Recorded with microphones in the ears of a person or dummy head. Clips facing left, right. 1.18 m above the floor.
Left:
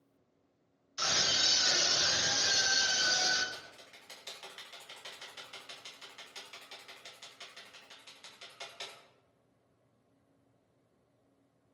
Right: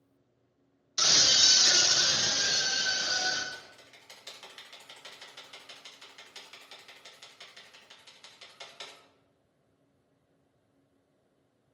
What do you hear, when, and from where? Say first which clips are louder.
1.0 s a scream: right 2 dB; 55° right (ahead or behind), 1.5 m; by 3.4 s 15° right (ahead or behind), 2.0 m
3.5 s typing on a keyboard: even; 5° right (ahead or behind), 1.2 m